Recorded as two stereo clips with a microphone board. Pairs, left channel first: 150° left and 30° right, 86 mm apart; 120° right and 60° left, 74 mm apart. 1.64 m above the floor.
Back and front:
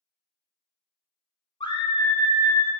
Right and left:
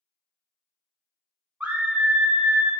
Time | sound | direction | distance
1.6 | a scream | 130° left | 0.6 m